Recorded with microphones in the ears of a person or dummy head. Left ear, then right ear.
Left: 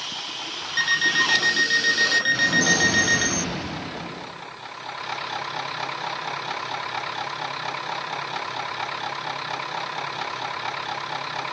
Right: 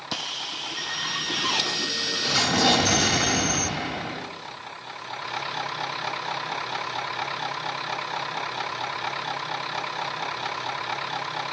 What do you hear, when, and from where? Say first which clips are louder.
0.8 s an alarm clock: left 11 dB; 60° left (ahead or behind), 5 m
2.3 s an explosion: left 1 dB; 35° right (ahead or behind), 3 m